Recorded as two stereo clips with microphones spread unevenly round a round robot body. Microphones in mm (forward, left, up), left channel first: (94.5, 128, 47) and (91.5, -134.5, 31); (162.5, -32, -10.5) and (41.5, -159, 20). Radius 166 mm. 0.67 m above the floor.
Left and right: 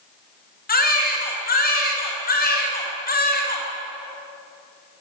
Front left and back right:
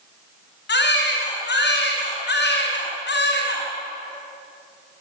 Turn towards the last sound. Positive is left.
turn(degrees=35)